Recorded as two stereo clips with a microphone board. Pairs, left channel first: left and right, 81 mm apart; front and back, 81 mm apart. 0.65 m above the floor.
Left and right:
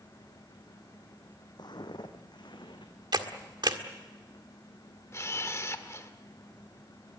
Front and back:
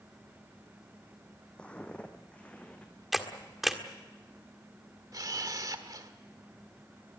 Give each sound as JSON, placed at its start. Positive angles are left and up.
{"t": 1.6, "sound": "footsteps", "azimuth_deg": 75, "distance_m": 1.6}
{"t": 3.1, "sound": "a camera shutter", "azimuth_deg": -95, "distance_m": 1.6}
{"t": 5.1, "sound": "a camera shutter", "azimuth_deg": 140, "distance_m": 1.4}